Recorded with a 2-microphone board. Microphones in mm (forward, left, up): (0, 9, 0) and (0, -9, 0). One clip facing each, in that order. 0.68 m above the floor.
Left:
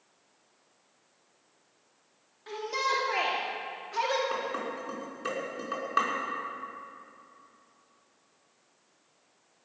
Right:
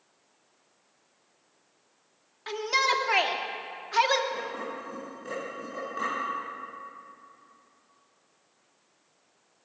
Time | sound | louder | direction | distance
2.5 | a shout | right 5 dB | 45° right (ahead or behind) | 2 m
4.3 | dishes clattering | left 1 dB | 85° left | 5.5 m